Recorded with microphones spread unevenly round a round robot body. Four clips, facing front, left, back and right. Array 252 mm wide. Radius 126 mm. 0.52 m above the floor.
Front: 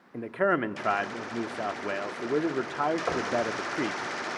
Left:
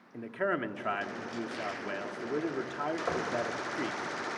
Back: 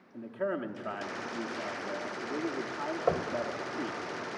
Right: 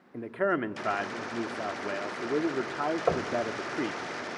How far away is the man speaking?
About 1.1 m.